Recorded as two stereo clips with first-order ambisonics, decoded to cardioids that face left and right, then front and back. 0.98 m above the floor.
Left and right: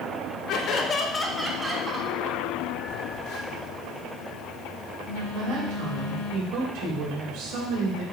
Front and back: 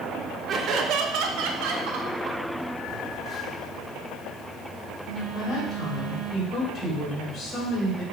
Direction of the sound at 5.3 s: 70° right.